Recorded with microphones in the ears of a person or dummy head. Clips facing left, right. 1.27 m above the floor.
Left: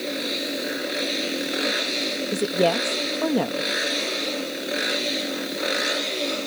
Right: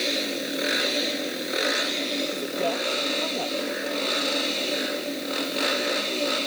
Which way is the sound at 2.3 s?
80° left.